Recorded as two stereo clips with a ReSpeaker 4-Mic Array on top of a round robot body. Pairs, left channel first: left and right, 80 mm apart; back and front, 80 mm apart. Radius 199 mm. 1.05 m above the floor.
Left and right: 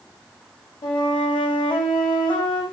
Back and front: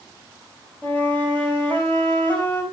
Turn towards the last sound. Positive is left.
turn(degrees=110)